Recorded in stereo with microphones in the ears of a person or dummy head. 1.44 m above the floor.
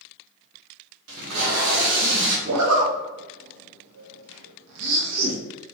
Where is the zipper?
85° right, 0.8 m.